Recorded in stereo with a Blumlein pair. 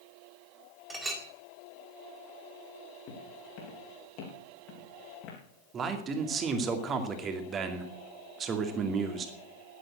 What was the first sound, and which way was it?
A clink, 10° right.